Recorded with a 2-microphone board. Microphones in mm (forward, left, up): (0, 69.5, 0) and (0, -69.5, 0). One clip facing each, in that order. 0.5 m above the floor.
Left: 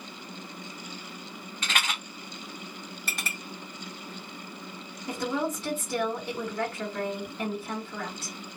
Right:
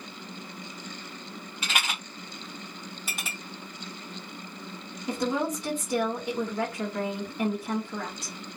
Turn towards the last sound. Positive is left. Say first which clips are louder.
# right 2 dB
turn(degrees=-15)  # may be behind; listen again after turning